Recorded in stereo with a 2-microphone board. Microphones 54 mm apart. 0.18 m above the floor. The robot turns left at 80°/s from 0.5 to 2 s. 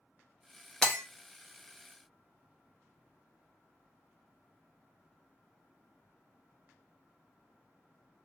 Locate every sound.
0.8 s breaking glass: 15° left (ahead or behind), 1.2 m; by 1.0 s centre (ahead or behind), 1.2 m